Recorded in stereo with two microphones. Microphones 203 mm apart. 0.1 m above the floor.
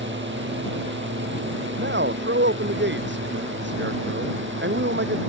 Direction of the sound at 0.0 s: 65° right (ahead or behind).